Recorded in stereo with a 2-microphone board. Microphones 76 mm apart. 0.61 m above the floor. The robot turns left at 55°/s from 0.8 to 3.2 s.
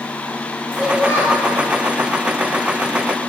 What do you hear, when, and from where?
0.7 s a child speaking: 10° right, 3 m; by 1.5 s 45° right, 3 m